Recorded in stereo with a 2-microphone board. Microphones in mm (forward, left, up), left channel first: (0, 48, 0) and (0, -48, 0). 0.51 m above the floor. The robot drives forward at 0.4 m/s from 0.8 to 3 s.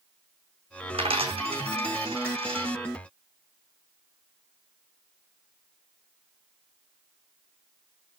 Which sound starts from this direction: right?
A dropped coin, at 0.9 s.